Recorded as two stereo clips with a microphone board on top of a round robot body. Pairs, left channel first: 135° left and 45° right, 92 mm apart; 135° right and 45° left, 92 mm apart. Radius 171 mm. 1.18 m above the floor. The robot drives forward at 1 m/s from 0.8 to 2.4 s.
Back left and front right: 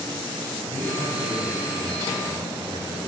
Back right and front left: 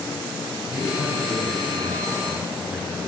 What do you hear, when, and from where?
0.7 s a man speaking: 25° right, 9 m; by 3.1 s 30° right, 7.5 m